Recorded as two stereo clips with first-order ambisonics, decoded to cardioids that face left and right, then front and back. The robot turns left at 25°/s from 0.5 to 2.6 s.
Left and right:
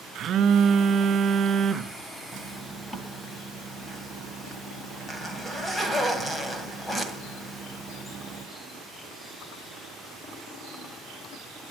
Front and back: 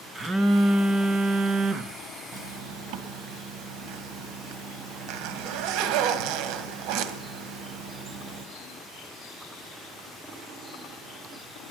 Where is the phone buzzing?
120° right, 1.0 m; by 2.0 s 155° right, 1.0 m.